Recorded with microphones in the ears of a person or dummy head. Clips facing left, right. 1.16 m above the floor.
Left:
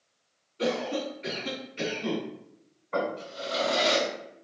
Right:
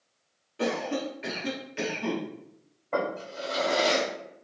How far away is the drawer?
About 2.0 m.